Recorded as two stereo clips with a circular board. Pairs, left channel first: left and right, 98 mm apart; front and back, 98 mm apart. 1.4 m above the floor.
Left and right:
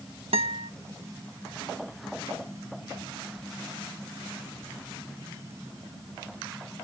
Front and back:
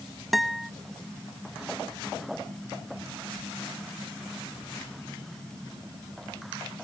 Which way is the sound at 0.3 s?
90° right.